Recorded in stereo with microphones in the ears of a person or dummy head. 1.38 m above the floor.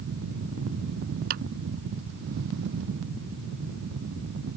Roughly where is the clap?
Right.